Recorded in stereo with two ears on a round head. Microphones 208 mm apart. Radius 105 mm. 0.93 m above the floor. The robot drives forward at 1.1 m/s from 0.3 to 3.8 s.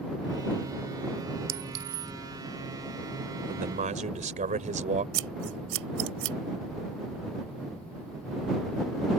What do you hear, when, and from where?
1.5 s a clink: 65° right (ahead or behind); by 2.1 s 75° right (ahead or behind)
3.5 s a man speaking: 35° right (ahead or behind)
5.1 s scissors: 55° right (ahead or behind)